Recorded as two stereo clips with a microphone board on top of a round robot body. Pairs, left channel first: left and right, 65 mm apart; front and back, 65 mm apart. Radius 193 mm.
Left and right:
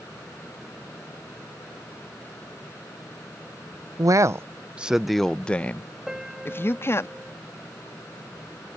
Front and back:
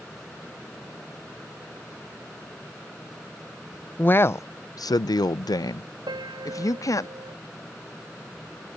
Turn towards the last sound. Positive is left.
turn(degrees=-175)